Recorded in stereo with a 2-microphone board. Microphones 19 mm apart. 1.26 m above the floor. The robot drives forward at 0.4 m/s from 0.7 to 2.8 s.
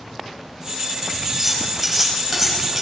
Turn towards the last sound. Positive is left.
turn(degrees=-10)  # may be behind; listen again after turning